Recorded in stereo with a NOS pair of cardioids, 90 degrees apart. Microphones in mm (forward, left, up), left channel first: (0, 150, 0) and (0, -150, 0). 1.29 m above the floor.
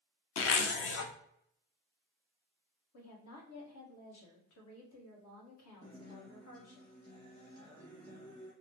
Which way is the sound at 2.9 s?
60° left.